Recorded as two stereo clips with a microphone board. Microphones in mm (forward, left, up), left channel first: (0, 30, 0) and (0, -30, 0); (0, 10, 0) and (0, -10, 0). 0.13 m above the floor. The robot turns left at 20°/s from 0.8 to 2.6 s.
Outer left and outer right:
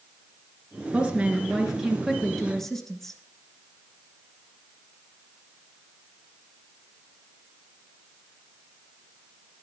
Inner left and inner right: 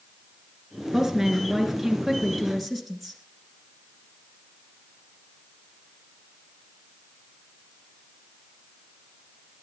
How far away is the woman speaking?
About 2 m.